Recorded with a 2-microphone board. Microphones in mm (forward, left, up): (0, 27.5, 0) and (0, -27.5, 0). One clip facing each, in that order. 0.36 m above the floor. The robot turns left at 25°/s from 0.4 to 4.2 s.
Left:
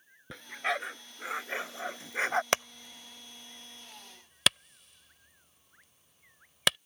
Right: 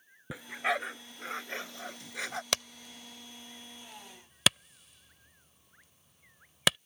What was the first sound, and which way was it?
A dog barking, 10° right (ahead or behind).